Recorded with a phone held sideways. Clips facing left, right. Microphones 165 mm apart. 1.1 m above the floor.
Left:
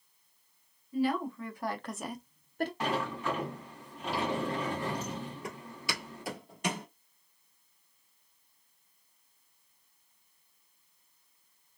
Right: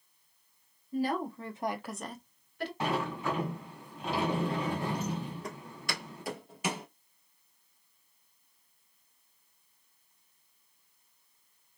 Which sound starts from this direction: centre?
Footsteps, at 5.4 s.